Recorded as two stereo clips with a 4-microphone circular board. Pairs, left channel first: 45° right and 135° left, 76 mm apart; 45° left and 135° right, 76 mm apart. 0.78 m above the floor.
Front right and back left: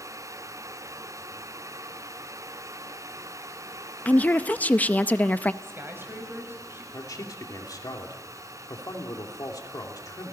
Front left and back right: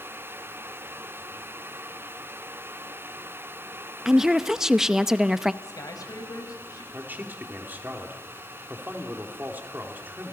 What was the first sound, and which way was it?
A woman speaking, 60° right.